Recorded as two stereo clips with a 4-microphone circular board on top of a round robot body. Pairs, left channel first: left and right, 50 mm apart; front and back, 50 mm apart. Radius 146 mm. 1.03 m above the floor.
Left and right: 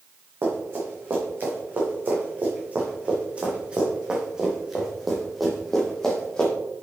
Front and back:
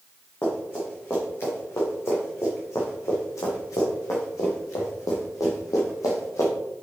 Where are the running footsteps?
50° right, 3.5 m; by 6.5 s 15° left, 2.5 m.